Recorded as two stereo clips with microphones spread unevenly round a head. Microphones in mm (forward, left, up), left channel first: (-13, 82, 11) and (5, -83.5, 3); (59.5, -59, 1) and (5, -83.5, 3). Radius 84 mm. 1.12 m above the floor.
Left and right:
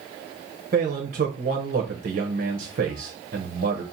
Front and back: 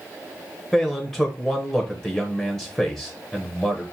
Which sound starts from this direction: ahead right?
A man speaking, at 0.7 s.